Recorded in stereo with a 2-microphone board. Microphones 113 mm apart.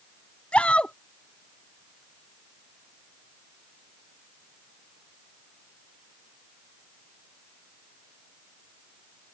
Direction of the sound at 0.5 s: 10° left (ahead or behind).